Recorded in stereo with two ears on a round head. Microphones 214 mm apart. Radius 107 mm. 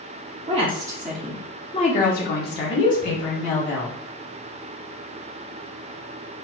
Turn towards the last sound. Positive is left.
turn(degrees=60)  # may be behind; listen again after turning